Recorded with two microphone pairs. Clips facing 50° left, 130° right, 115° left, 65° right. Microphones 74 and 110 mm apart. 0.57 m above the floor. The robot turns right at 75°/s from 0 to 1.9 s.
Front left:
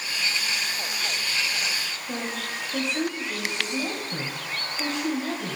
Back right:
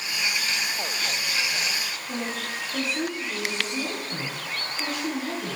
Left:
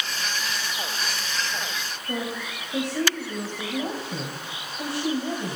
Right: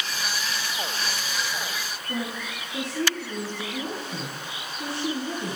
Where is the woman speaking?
110° left, 2.5 m.